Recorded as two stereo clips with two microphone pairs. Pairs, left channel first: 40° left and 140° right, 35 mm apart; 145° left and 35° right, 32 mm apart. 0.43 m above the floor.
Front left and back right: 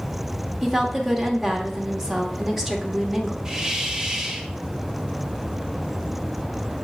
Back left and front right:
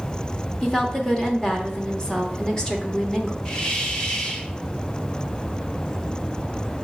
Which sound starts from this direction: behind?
A hiss, at 3.5 s.